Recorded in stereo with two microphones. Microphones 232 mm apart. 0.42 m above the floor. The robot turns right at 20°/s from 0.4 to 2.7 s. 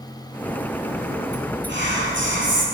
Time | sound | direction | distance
1.7 | whispering | 50° right (ahead or behind) | 1.8 m